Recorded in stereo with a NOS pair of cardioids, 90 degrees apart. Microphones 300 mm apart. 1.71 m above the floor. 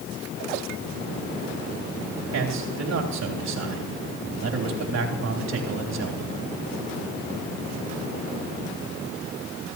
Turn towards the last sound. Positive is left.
turn(degrees=-60)